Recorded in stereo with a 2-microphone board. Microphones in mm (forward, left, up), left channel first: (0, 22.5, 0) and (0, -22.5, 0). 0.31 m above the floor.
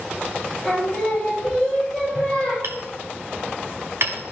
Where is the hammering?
70° right (ahead or behind), 1.0 m.